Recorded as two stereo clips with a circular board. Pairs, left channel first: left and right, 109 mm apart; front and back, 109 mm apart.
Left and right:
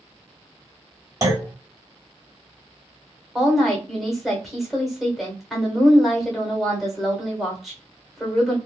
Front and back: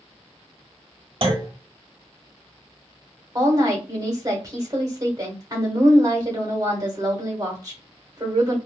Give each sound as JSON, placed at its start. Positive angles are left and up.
{"t": 1.2, "sound": "a clunk", "azimuth_deg": -145, "distance_m": 0.9}
{"t": 3.4, "sound": "a woman speaking", "azimuth_deg": 180, "distance_m": 1.1}